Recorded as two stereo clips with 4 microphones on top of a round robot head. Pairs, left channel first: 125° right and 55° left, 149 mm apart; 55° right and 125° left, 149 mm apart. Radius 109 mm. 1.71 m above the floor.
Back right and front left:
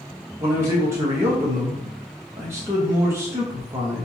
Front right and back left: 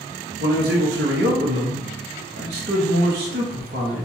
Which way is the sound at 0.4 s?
130° left.